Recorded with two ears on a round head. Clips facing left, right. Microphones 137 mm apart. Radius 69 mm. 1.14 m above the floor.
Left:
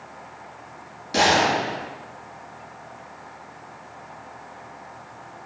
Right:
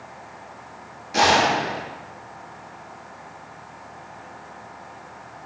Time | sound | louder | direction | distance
1.1 | a gunshot | right 1 dB | 40° left (ahead or behind) | 6.5 m